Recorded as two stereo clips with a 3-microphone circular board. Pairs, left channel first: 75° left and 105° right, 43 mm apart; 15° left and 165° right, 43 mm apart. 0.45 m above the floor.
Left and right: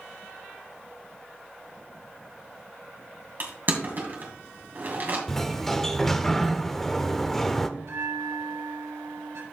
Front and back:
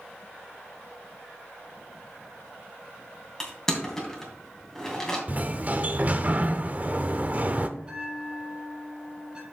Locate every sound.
3.4 s crushing: 65° right, 2.5 m
5.3 s a sliding door: 155° left, 0.7 m
7.8 s a bell: 95° right, 2 m